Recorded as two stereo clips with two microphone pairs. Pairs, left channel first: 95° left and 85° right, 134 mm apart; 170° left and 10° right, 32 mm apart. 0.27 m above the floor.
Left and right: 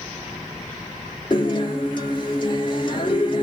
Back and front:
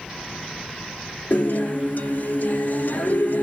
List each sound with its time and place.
1.3 s a guitar: 145° left, 2 m